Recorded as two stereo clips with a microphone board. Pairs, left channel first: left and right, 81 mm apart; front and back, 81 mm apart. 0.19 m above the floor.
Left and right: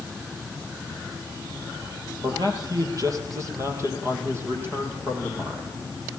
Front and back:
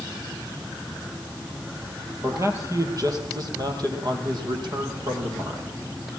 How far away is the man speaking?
About 4 m.